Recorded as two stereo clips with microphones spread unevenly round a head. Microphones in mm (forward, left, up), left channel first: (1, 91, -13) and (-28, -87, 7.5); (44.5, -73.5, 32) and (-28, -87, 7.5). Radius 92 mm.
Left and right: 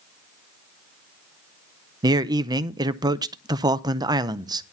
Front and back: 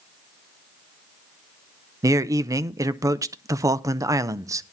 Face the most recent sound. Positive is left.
turn(degrees=-170)